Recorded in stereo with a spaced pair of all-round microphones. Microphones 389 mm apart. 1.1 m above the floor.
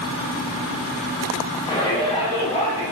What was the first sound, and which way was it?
A shout, 15° left (ahead or behind).